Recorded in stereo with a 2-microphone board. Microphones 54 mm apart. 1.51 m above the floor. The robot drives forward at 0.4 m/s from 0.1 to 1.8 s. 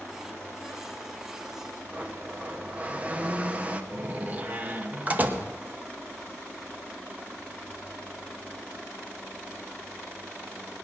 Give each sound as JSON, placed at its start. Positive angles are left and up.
{"t": 1.9, "sound": "a blender", "side_deg": -25, "distance_m": 0.9}
{"t": 3.9, "sound": "a door slam", "side_deg": -30, "distance_m": 1.1}